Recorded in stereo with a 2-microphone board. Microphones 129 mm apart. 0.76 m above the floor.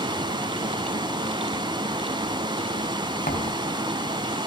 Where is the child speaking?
I don't hear a child speaking.